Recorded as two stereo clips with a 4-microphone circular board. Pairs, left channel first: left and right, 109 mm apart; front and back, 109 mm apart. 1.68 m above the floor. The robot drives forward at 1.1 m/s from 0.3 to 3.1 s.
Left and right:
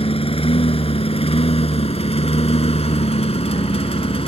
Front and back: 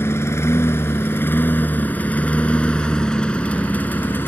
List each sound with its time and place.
0.0 s a lawn mower: 65° left; by 4.3 s 70° left